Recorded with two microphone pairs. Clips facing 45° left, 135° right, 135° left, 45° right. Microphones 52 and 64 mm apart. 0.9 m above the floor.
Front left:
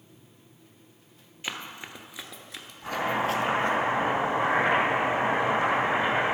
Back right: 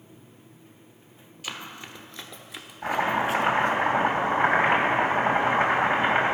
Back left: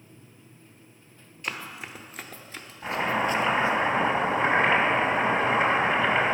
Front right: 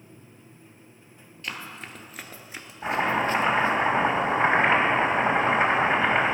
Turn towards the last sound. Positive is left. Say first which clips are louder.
# back right 3 dB, front right 2 dB
turn(degrees=-95)